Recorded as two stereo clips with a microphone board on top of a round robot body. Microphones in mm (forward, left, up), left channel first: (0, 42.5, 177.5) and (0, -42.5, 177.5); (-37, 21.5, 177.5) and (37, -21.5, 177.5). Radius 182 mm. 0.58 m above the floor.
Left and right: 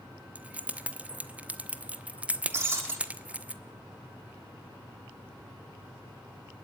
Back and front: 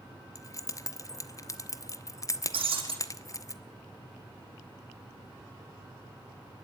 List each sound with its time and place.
0.3 s keys jangling: 165° right, 1.2 m
2.5 s breaking glass: 30° right, 5 m